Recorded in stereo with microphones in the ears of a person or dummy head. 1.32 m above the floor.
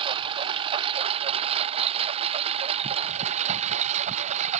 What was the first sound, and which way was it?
A lawn mower, 35° right (ahead or behind).